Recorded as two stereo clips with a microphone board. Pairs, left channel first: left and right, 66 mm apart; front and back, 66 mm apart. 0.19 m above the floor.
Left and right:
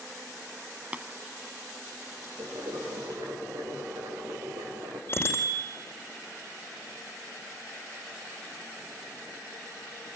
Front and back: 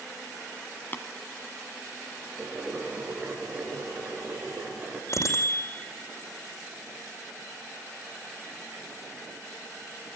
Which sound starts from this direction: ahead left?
A bicycle bell, at 5.1 s.